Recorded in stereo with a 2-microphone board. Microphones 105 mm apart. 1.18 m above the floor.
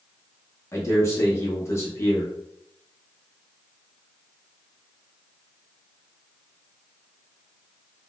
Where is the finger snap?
I don't hear a finger snap.